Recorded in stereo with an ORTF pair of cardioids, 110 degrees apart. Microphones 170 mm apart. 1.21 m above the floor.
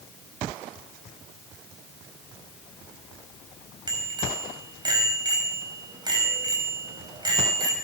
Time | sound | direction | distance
3.9 | a bicycle bell | 25° right | 5.5 m